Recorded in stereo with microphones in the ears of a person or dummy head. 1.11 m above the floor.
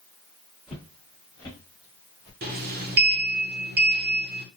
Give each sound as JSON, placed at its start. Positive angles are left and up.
{"t": 0.7, "sound": "footsteps", "side_deg": -5, "distance_m": 1.2}
{"t": 2.4, "sound": "a sliding door", "side_deg": -50, "distance_m": 0.5}